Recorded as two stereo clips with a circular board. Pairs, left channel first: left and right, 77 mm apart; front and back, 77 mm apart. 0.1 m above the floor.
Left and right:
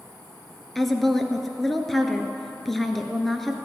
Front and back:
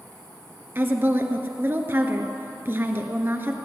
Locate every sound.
0.8 s a woman speaking: 175° left, 1.2 m